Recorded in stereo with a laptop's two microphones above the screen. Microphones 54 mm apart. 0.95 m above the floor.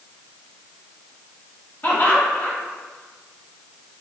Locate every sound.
1.8 s laughter: 35° left (ahead or behind), 1.2 m